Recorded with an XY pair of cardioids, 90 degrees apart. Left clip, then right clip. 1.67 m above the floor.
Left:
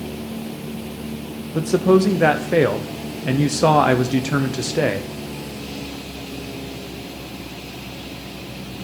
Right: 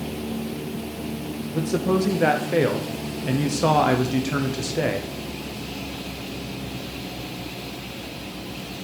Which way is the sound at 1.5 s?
40° left.